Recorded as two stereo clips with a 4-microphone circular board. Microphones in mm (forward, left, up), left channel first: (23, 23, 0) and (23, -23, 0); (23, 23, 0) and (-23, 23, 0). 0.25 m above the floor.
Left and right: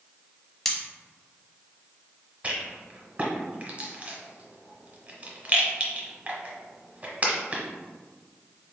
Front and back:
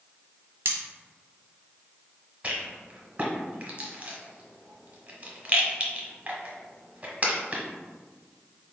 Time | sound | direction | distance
0.7 | cutlery clinking | 175° left | 0.8 m
2.4 | a rattle | 130° right | 0.9 m